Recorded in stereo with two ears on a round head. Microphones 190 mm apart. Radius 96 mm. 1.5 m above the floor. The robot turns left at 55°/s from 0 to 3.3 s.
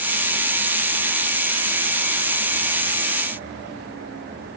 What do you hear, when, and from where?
Only background noise.